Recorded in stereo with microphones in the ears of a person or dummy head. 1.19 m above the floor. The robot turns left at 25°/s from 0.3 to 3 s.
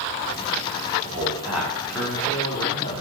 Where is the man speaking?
165° right, 3 m; by 3.0 s 150° left, 3 m.